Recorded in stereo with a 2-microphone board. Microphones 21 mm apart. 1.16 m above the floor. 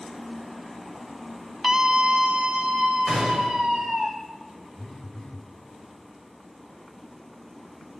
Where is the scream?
30° right (ahead or behind), 0.8 m; by 4.1 s 75° right (ahead or behind), 2.5 m.